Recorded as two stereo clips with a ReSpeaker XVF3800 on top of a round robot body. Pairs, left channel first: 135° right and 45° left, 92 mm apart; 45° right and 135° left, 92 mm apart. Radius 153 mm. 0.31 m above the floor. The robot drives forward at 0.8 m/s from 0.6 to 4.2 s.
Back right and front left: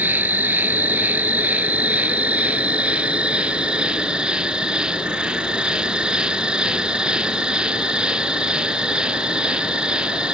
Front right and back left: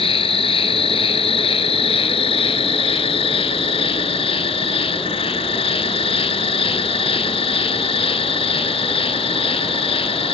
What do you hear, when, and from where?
0.0 s an insect: 25° right; by 10.3 s 35° right